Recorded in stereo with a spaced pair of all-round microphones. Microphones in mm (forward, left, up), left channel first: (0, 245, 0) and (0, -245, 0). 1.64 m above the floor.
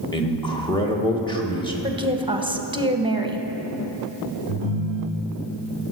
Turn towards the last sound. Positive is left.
turn(degrees=50)  # may be behind; listen again after turning